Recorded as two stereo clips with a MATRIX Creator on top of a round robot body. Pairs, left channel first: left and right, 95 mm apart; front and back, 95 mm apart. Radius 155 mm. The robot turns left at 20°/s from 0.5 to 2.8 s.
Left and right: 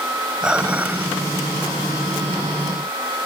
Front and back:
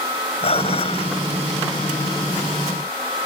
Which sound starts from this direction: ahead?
Dishes clattering, at 0.4 s.